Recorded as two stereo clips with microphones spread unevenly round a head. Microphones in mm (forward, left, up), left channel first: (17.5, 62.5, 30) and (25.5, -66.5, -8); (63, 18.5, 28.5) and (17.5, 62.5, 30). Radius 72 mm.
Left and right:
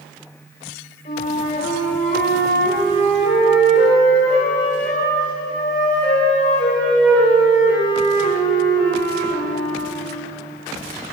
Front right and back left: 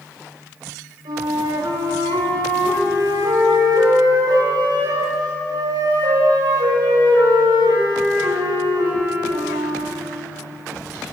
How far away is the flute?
About 8.5 m.